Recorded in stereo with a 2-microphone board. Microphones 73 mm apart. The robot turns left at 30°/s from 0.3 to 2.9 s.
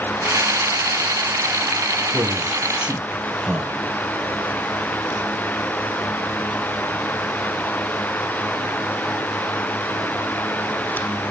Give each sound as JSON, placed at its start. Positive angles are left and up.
{"t": 2.1, "sound": "a man speaking", "side_deg": -35, "distance_m": 3.0}